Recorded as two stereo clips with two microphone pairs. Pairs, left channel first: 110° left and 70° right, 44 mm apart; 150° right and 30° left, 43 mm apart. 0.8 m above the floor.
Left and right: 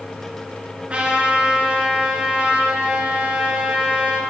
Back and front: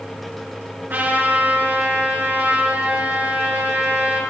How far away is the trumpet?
About 3.5 m.